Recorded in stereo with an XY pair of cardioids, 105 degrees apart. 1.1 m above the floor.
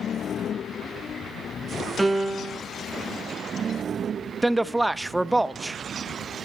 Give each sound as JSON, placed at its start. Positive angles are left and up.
{"t": 2.0, "sound": "a piano", "azimuth_deg": -20, "distance_m": 0.7}
{"t": 4.4, "sound": "a man speaking", "azimuth_deg": -15, "distance_m": 0.7}